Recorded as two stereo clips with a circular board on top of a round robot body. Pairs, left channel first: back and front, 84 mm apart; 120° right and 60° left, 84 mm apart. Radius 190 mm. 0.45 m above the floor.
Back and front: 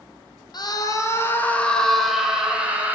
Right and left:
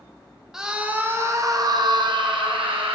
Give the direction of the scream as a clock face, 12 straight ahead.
7 o'clock.